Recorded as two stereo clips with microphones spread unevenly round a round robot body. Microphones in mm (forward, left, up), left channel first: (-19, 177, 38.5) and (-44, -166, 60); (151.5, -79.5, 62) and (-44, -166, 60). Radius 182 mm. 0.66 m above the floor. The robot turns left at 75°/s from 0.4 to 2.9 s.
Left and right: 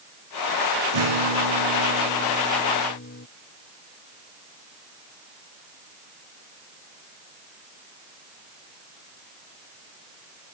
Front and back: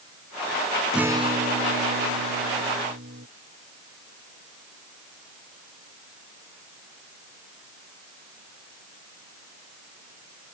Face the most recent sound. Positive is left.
turn(degrees=145)